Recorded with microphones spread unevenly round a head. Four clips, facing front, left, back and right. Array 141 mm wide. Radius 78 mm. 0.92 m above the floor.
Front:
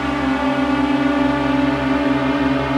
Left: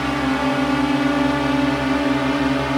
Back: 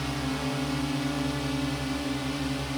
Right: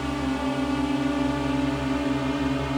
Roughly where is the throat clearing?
I don't hear throat clearing.